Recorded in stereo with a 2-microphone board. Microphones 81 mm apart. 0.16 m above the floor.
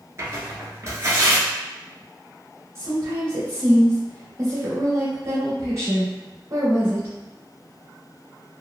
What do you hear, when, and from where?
0.2 s tearing paper: 40° right (ahead or behind), 1.0 m
2.8 s a woman speaking: 35° right (ahead or behind), 1.7 m